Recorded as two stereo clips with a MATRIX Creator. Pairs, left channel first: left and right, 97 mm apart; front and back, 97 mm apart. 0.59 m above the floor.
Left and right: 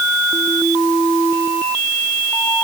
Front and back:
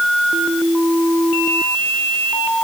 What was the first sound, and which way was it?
Only background noise.